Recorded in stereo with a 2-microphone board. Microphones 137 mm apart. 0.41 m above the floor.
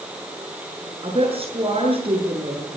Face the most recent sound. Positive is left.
turn(degrees=-45)  # may be behind; listen again after turning